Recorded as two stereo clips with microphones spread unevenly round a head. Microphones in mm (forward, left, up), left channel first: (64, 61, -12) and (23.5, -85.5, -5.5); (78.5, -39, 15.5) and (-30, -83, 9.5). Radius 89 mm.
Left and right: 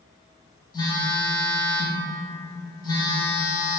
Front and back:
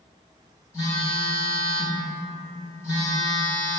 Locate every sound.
0.7 s a phone buzzing: 50° left, 0.9 m